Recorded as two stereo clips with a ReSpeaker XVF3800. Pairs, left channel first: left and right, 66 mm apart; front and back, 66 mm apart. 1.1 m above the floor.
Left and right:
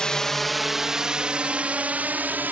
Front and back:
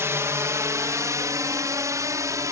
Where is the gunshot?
No gunshot in this recording.